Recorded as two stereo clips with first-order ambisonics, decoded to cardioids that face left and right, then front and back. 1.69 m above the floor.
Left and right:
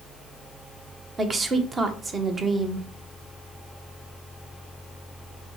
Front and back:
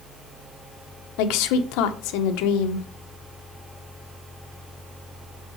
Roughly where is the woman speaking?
Ahead.